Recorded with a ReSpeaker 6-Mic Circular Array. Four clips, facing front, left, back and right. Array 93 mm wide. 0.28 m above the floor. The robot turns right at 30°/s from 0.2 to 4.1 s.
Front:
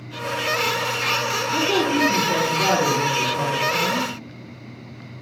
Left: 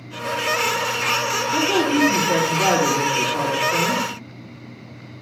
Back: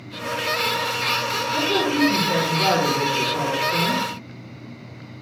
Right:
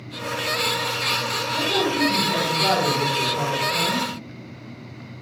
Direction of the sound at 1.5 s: 50° left.